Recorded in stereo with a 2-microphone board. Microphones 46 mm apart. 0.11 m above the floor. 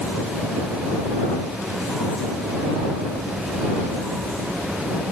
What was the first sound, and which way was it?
Only background noise.